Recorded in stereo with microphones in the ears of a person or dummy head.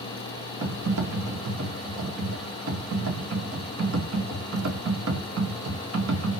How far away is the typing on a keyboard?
About 1.0 m.